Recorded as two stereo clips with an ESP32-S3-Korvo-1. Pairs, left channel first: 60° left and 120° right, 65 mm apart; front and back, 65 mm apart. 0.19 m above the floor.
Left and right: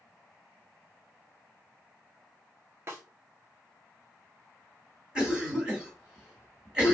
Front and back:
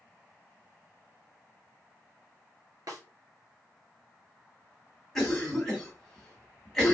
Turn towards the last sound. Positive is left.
turn(degrees=-75)